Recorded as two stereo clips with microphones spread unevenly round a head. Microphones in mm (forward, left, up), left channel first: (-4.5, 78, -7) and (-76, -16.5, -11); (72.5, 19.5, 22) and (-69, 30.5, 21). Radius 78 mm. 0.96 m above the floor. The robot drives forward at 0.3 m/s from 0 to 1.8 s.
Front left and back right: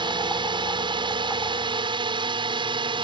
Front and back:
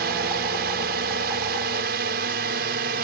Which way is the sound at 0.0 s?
170° right.